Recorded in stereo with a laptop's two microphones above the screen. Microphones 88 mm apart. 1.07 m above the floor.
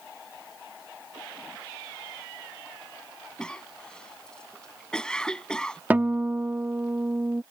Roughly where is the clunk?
I don't hear a clunk.